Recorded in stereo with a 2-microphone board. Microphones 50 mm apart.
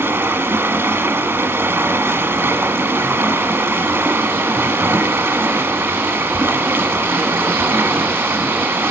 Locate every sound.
0.0 s running water: 60° right (ahead or behind), 1.2 m